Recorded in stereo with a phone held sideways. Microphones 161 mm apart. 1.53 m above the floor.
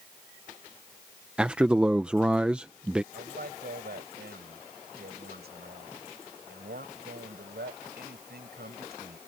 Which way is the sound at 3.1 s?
85° right.